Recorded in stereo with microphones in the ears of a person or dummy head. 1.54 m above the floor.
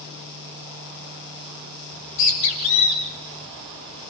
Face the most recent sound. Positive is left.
turn(degrees=65)  # may be behind; listen again after turning